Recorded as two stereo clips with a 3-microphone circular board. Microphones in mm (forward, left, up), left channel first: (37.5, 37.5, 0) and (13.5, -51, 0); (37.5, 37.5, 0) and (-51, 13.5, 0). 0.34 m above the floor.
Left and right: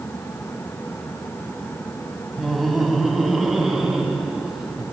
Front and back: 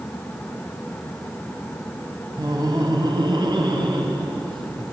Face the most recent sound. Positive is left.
turn(degrees=170)